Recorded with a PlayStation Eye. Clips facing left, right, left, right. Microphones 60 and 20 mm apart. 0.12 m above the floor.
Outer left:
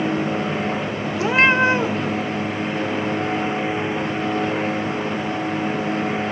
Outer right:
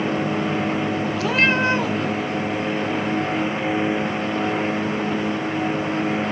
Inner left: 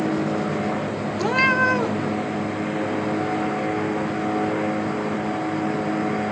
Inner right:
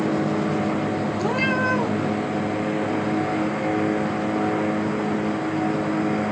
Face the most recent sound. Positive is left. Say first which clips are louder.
# outer left 4 dB, inner left 5 dB
turn(degrees=30)  # may be behind; listen again after turning